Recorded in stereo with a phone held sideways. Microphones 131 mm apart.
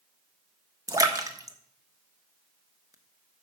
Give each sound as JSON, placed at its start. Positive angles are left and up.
{"t": 0.9, "sound": "a splash", "side_deg": -25, "distance_m": 1.0}